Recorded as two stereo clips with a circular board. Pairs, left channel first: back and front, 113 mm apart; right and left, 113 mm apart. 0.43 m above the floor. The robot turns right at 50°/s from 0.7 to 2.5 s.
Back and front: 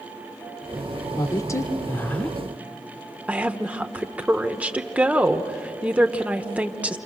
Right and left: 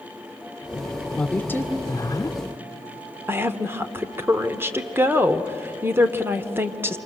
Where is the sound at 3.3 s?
60° left, 1.1 m.